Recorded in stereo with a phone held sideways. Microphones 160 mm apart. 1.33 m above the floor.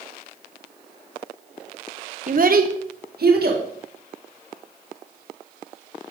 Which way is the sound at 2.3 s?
55° right (ahead or behind).